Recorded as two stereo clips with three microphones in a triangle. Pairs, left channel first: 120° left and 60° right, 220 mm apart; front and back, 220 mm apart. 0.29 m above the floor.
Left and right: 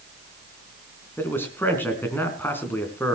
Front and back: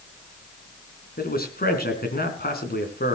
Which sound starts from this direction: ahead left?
A man speaking, at 1.2 s.